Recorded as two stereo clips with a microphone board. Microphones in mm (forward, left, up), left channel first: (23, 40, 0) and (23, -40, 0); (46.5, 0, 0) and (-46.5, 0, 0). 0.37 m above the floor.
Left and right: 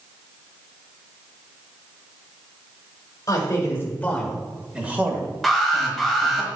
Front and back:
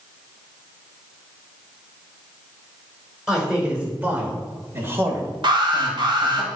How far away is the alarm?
About 1.5 m.